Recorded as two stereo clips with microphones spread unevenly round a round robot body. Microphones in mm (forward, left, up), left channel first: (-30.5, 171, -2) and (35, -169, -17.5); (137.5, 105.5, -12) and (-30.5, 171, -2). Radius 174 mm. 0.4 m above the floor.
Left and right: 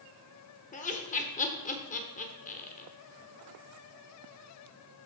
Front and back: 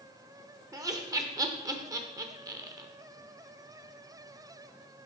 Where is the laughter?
120° left, 1.0 m.